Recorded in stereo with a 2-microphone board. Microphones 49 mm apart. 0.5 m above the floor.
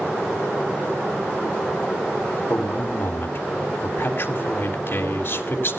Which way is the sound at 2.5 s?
50° left (ahead or behind).